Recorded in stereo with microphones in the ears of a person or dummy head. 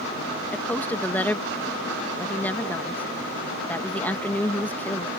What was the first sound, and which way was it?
A woman speaking, 10° left (ahead or behind).